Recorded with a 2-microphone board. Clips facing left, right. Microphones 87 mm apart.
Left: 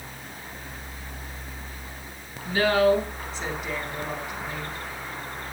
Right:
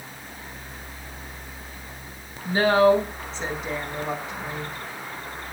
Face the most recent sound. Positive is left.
turn(degrees=-25)  # may be behind; listen again after turning